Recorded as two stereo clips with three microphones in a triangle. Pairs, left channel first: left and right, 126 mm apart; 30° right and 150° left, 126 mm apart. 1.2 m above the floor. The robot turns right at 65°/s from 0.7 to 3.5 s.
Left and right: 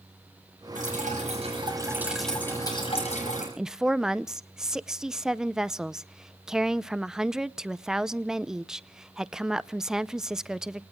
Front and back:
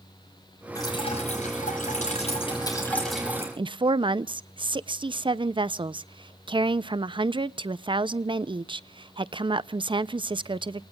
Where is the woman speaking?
175° right, 0.6 m.